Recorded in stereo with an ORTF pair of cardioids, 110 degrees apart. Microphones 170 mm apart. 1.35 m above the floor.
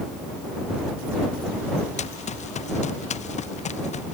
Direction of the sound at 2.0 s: 40° left.